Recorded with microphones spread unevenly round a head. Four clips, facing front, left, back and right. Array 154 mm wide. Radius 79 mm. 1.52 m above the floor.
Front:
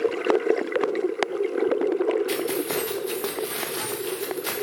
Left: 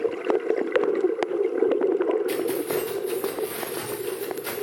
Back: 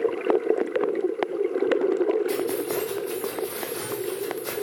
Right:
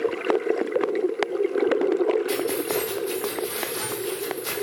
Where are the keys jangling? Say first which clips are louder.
Even, even; 40° left, 0.8 m.